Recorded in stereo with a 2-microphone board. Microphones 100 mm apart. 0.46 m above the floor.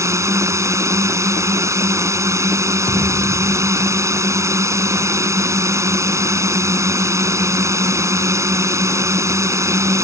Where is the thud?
70° left (ahead or behind).